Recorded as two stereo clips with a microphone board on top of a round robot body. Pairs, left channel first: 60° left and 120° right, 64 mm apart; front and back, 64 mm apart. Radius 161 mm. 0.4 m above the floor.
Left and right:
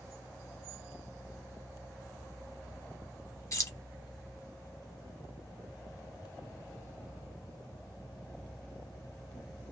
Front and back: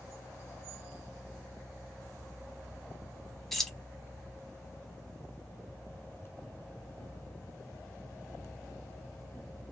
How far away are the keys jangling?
About 1.0 m.